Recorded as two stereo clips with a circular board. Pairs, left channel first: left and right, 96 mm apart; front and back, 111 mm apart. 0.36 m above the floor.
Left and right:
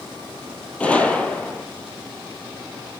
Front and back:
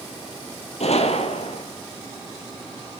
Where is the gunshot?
10° left, 1.9 m.